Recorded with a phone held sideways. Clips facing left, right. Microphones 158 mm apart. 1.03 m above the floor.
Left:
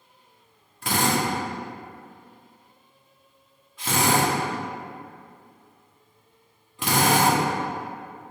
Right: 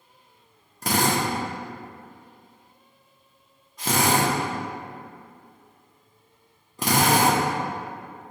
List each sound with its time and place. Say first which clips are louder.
0.8 s a drill: even; 40° right (ahead or behind), 0.8 m